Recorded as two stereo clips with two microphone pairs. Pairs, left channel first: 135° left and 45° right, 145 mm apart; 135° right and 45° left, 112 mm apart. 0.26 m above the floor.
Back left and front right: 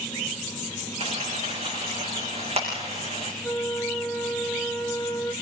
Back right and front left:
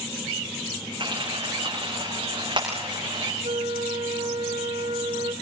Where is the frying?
Straight ahead, 8 m.